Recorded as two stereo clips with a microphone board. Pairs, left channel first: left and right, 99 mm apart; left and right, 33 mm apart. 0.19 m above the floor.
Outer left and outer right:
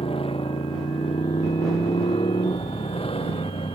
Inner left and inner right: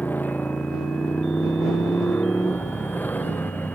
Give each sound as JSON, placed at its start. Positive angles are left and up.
{"t": 0.0, "sound": "a motorcycle", "side_deg": 80}